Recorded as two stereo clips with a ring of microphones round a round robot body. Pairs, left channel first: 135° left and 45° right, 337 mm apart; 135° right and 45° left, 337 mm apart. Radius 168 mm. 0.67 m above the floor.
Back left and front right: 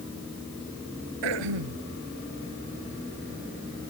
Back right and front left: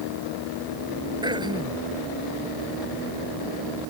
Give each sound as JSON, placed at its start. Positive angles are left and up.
{"t": 1.2, "sound": "throat clearing", "azimuth_deg": -35}